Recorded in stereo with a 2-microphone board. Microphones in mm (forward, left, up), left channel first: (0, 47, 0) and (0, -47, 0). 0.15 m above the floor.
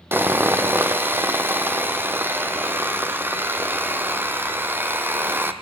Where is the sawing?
25° right (ahead or behind), 1.1 m.